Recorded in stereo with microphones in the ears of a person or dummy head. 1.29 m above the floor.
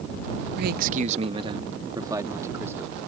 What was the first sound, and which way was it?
A man speaking, 65° right (ahead or behind).